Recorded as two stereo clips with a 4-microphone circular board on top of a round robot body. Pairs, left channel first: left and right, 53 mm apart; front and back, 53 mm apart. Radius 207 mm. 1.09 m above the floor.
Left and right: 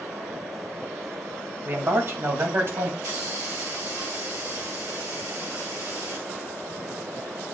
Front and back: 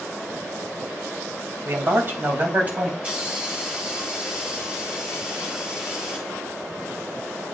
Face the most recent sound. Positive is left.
turn(degrees=-115)